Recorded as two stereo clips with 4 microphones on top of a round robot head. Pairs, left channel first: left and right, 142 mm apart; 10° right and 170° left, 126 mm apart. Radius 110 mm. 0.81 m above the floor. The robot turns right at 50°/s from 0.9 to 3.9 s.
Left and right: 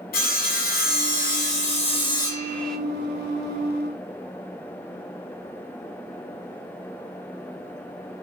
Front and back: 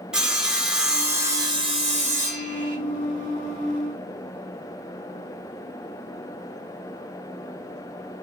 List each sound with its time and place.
0.1 s sawing: 85° left, 1.3 m; by 2.8 s straight behind, 1.3 m